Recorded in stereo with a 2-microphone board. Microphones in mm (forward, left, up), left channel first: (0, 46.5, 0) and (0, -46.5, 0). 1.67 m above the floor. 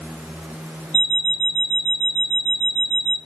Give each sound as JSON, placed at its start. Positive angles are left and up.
{"t": 0.9, "sound": "an alarm clock", "side_deg": 10, "distance_m": 1.5}